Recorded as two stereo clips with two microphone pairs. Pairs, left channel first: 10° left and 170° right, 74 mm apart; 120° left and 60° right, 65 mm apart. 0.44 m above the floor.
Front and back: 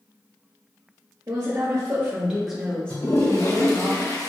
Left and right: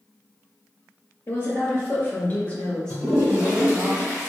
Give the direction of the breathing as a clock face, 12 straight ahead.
No breathing in this recording.